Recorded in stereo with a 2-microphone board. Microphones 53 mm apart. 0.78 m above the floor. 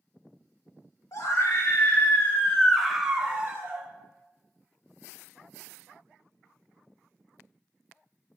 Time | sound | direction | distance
1.1 | a scream | 65° left (ahead or behind) | 2 m